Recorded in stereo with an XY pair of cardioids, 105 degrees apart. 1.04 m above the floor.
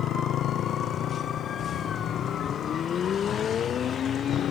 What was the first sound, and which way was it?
A motorcycle, 70° left.